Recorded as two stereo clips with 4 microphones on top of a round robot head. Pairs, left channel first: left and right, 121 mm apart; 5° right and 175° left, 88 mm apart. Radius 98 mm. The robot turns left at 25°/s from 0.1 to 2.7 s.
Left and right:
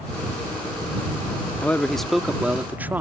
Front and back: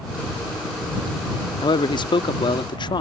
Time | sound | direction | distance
1.6 | a man speaking | 15° left | ?